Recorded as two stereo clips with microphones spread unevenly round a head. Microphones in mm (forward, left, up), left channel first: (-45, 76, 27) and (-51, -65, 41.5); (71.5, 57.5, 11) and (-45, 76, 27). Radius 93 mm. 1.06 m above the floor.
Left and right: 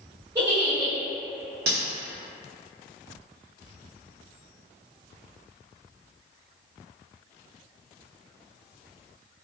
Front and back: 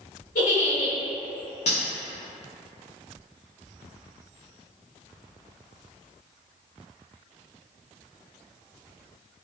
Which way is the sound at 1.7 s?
70° right.